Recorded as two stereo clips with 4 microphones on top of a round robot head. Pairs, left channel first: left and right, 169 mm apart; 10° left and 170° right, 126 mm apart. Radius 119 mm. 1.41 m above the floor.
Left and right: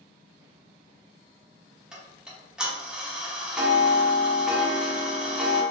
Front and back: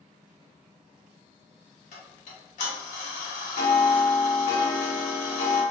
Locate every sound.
1.9 s ticking: 5° right, 0.9 m